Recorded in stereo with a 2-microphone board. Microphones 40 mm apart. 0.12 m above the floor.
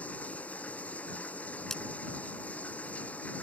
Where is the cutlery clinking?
10° left (ahead or behind).